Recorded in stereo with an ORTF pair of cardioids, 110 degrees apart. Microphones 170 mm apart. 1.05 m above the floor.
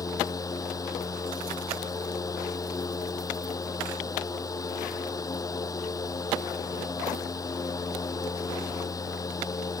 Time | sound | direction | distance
0.0 | a fan | 20° left | ?